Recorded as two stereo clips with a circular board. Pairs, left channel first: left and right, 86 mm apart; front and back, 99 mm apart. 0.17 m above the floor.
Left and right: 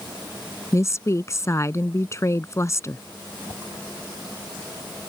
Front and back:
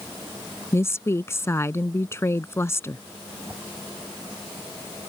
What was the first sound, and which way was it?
A woman speaking, 50° left.